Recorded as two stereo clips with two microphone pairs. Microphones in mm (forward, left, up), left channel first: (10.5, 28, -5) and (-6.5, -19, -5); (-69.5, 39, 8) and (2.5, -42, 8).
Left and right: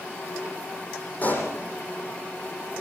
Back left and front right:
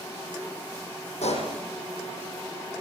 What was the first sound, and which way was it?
A pop, 125° left.